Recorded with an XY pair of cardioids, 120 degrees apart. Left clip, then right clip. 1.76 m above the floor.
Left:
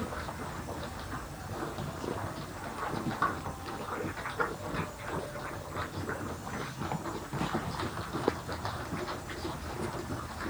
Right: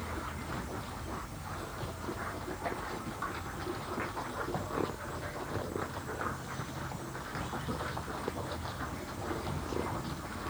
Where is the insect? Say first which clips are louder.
Left 2 dB; 35° left, 5.5 m.